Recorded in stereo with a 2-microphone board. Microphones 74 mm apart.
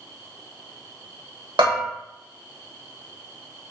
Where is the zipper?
I don't hear a zipper.